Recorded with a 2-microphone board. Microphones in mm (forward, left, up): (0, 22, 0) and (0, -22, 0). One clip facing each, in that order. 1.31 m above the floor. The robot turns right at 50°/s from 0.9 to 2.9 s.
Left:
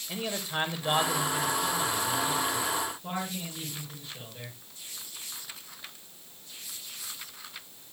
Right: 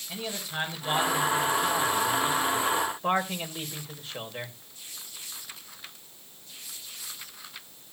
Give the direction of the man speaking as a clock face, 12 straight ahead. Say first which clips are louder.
Left 2 dB; 7 o'clock.